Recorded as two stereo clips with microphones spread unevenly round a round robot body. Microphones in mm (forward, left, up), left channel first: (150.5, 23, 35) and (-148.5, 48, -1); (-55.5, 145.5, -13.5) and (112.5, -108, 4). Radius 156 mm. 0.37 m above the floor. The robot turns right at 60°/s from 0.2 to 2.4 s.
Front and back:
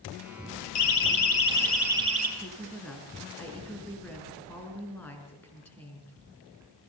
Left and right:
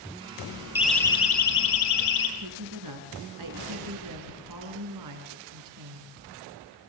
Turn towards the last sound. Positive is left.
turn(degrees=-90)